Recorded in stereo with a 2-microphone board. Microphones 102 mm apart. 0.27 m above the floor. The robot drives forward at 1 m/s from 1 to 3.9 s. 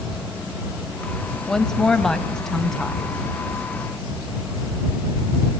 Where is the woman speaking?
5° left (ahead or behind), 1.0 m.